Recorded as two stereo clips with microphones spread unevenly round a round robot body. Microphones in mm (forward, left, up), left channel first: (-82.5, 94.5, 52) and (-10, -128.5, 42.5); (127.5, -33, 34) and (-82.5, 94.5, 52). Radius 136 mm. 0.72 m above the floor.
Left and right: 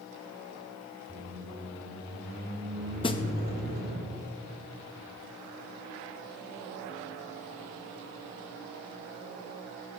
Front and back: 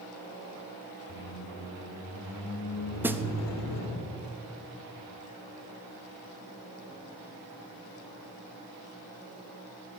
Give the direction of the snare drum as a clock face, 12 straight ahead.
10 o'clock.